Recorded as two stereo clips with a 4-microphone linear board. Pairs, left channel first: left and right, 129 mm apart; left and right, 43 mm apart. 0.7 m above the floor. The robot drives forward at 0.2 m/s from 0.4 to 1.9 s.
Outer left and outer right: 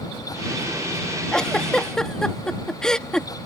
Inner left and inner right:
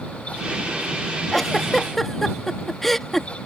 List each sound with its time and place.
1.3 s a giggle: 5° left (ahead or behind)